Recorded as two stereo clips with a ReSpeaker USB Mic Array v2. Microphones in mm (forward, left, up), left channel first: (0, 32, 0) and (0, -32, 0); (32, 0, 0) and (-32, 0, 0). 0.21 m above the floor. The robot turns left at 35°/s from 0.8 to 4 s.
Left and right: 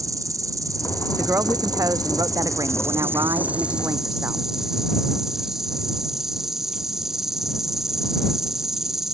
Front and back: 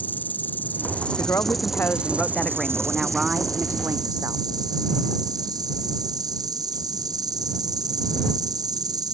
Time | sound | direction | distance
0.0 | an insect | 65° right | ?
1.1 | a woman speaking | 35° right | ?